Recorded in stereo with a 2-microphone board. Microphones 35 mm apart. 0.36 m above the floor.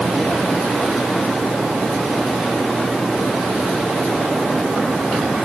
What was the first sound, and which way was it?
Only background noise.